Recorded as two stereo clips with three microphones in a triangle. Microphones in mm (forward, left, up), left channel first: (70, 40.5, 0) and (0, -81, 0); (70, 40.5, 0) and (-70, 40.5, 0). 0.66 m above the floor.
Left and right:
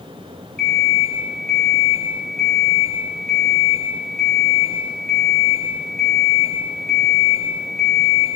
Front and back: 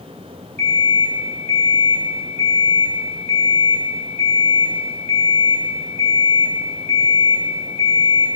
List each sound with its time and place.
0.6 s an alarm clock: 140° left, 3.5 m